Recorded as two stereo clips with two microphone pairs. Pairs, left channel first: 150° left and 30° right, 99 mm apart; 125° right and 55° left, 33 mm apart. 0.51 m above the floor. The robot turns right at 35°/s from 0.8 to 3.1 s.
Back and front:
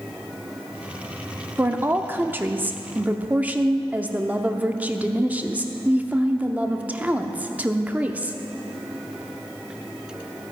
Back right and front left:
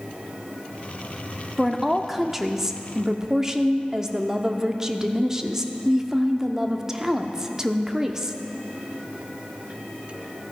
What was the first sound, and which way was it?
A woman speaking, 40° right.